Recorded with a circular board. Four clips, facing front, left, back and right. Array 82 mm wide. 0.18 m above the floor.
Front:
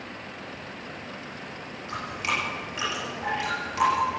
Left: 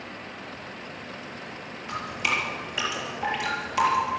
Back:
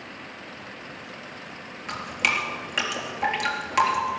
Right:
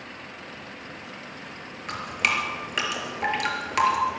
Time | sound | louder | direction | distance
1.9 | dripping | right 1 dB, back 2 dB | 130° right | 4 m